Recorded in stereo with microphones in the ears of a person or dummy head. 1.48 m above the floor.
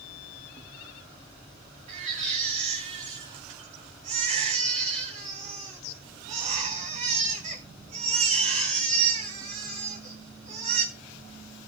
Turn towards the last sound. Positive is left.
turn(degrees=-35)  # may be behind; listen again after turning